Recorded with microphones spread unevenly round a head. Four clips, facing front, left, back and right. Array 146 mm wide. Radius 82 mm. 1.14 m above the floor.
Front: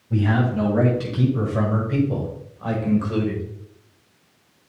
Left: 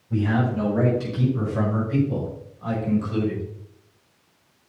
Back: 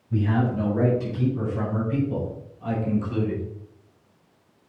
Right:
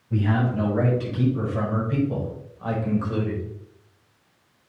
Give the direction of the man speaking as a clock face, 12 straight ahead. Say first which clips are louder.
Left 1 dB, front 2 dB; 12 o'clock.